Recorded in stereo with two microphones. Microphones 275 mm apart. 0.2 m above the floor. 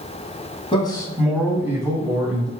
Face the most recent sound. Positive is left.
turn(degrees=-25)  # may be behind; listen again after turning